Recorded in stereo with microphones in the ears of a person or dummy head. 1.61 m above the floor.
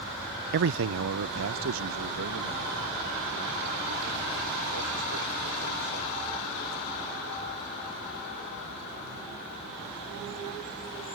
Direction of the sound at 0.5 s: 60° right (ahead or behind).